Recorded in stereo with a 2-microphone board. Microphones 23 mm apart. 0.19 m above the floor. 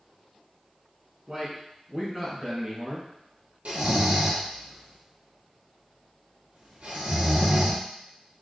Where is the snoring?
70° right (ahead or behind), 1.2 m.